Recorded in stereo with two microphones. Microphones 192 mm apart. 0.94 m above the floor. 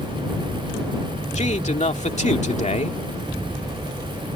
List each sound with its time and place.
1.4 s a man speaking: 35° left (ahead or behind)